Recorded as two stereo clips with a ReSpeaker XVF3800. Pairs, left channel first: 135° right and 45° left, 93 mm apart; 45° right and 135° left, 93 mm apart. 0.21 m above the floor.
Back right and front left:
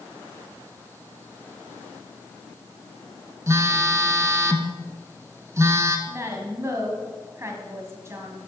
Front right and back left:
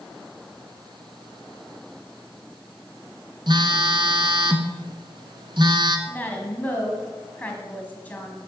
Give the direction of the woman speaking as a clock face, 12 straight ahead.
11 o'clock.